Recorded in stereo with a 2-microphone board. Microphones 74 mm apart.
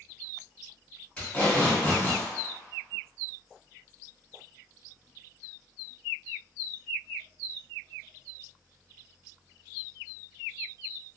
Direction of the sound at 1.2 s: 15° left (ahead or behind).